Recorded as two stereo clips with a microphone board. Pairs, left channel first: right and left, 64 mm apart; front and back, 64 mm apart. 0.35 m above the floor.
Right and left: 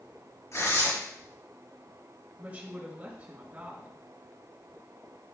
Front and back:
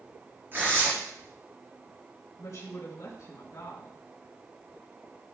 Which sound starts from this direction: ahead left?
A woman speaking, at 2.4 s.